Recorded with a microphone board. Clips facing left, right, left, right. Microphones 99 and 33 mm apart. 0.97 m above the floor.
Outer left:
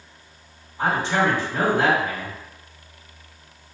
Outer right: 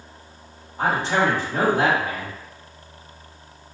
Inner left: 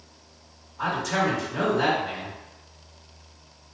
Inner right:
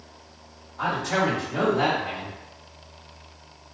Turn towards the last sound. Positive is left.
turn(degrees=-70)  # may be behind; listen again after turning